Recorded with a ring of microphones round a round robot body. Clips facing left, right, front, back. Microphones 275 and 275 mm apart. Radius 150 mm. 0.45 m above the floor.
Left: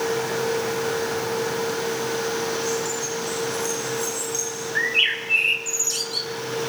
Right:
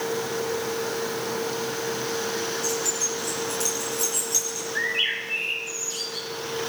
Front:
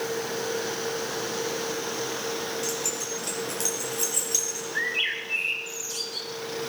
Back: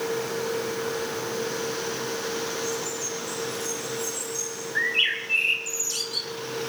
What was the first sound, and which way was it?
Keys jangling, 10° right.